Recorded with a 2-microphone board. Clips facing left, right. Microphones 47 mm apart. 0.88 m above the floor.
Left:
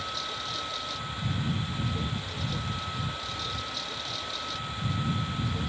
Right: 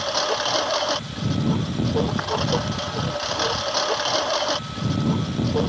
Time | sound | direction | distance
0.0 | a lawn mower | 70° right (ahead or behind) | ?